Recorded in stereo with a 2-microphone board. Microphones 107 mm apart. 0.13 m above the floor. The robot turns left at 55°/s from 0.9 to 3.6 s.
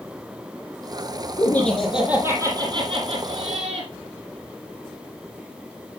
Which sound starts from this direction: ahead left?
Laughter, at 1.4 s.